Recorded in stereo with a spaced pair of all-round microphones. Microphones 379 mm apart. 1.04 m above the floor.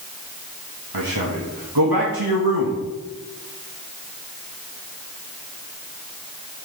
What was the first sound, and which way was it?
A man speaking, 70° right (ahead or behind).